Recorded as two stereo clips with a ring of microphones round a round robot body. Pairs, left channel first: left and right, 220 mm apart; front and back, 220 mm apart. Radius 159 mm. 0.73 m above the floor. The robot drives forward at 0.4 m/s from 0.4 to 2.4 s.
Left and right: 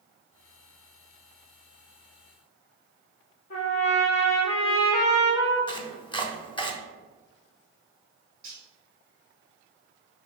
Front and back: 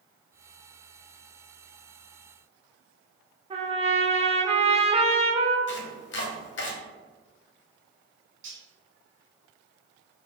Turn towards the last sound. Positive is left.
turn(degrees=-155)